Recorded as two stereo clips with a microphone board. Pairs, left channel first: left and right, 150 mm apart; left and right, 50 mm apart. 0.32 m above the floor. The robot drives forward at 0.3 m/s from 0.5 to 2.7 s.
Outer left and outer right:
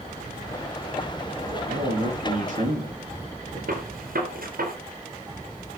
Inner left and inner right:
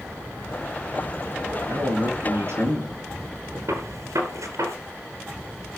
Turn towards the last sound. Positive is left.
turn(degrees=-80)